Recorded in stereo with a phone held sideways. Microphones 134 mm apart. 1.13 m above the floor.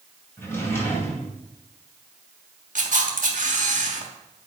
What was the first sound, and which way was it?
A drawer, 20° left (ahead or behind).